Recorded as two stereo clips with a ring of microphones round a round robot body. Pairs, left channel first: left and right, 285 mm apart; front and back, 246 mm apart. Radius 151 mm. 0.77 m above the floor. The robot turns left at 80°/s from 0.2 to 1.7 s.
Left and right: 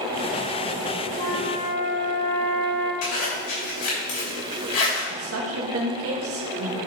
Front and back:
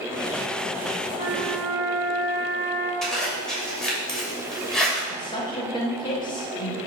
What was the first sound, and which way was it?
A flute, 120° left.